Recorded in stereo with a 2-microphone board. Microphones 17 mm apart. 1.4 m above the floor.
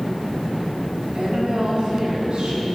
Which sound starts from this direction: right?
A woman speaking, at 1.1 s.